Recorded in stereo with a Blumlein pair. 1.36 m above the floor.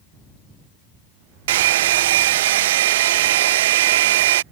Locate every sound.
1.5 s a hair dryer: 55° right